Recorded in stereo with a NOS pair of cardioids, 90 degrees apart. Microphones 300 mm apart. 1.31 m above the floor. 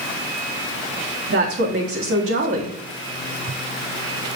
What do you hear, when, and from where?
1.3 s a woman speaking: 55° right, 1.5 m